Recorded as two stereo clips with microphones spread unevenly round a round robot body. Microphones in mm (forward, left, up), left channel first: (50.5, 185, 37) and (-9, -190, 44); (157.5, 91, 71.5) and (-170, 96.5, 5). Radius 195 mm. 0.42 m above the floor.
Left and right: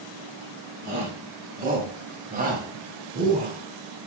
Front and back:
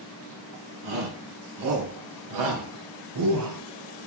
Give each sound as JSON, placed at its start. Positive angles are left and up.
{"t": 0.8, "sound": "a shout", "azimuth_deg": -165, "distance_m": 4.0}